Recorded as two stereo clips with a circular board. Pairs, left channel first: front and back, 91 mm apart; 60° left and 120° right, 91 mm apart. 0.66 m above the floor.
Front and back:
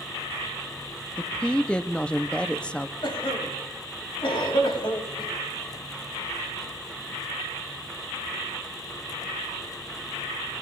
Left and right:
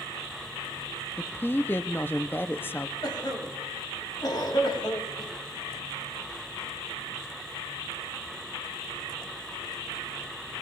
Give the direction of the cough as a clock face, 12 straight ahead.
11 o'clock.